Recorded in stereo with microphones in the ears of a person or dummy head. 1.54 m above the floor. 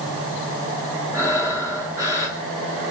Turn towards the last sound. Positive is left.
turn(degrees=-20)  # may be behind; listen again after turning